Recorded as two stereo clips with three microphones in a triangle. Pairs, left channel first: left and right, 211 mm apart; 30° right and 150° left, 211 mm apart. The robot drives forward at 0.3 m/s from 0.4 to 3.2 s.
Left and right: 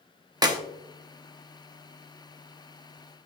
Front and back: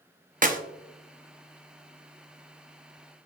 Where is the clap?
160° right, 0.8 m.